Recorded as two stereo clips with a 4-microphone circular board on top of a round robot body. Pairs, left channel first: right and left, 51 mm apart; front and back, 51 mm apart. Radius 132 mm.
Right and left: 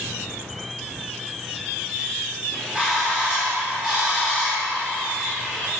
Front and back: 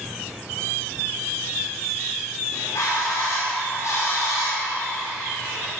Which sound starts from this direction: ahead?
A bird, at 2.5 s.